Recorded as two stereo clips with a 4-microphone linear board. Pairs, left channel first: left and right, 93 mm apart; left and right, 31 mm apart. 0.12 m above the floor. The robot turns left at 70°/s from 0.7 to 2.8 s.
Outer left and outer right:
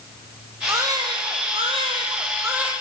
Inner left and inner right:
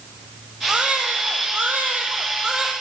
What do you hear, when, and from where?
0.7 s a baby crying: 30° right, 1.9 m; by 2.7 s 170° right, 1.9 m